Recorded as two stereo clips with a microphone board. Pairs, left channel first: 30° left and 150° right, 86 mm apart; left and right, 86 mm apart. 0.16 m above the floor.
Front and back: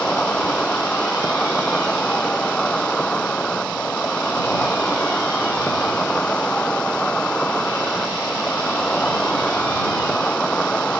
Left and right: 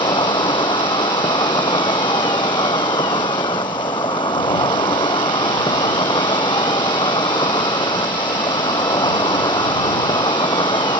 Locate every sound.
0.0 s an insect: 110° left